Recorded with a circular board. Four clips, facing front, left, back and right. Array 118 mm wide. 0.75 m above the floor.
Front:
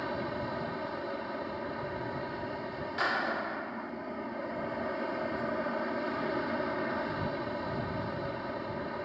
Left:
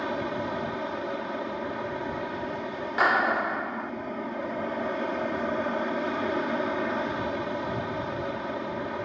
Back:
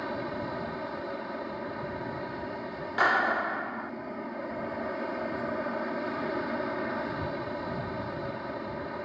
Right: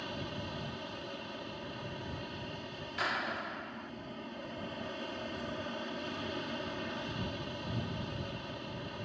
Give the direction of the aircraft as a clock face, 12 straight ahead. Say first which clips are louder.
Left 12 dB, back 1 dB; 9 o'clock.